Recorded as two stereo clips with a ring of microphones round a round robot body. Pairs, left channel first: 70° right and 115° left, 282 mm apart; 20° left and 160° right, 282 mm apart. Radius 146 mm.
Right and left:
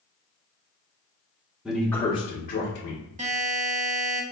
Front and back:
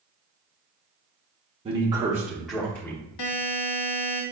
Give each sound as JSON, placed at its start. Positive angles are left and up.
{"t": 1.6, "sound": "a man speaking", "azimuth_deg": -165, "distance_m": 0.8}
{"t": 3.2, "sound": "a buzzer", "azimuth_deg": 45, "distance_m": 0.7}